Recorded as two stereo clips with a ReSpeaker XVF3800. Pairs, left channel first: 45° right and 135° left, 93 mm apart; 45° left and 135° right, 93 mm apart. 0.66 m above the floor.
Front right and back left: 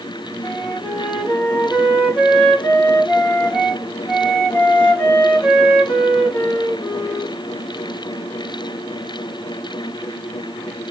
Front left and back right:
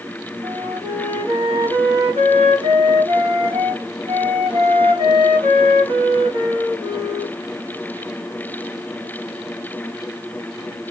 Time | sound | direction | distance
0.4 | a flute | 125° right | 1.1 m